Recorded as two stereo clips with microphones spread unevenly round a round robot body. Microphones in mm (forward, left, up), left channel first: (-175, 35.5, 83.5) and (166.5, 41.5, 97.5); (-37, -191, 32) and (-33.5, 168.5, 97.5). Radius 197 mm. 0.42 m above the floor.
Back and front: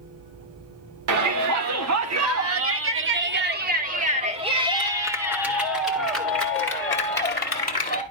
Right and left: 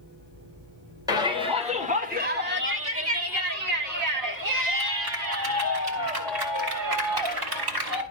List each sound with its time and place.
1.1 s a shout: 5° left, 2 m; by 8.0 s 105° left, 3 m